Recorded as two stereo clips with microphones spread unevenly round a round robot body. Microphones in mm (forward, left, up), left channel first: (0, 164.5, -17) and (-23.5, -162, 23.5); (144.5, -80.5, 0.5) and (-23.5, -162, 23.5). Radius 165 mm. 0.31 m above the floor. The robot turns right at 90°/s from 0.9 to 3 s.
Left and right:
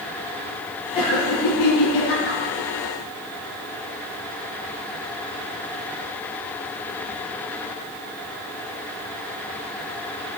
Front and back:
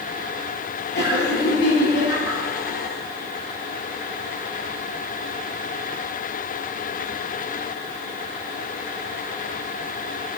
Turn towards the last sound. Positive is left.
turn(degrees=-165)